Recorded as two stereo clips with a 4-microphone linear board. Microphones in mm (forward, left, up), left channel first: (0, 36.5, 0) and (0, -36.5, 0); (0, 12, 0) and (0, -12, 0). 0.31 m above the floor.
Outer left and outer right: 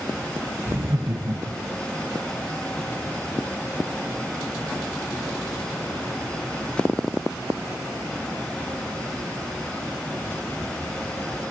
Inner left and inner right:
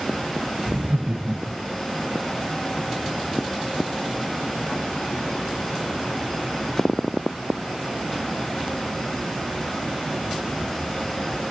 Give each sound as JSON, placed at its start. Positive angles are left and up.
{"t": 0.7, "sound": "laughter", "side_deg": -30, "distance_m": 1.0}